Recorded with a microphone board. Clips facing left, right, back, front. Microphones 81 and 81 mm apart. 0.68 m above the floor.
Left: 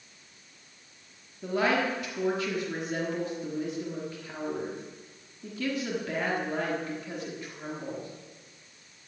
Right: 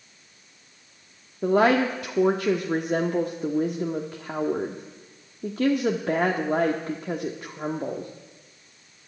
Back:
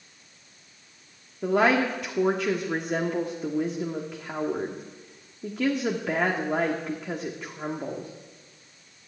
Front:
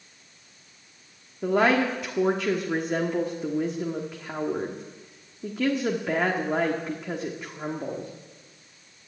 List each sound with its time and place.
1.4 s a woman speaking: 90° right, 1.2 m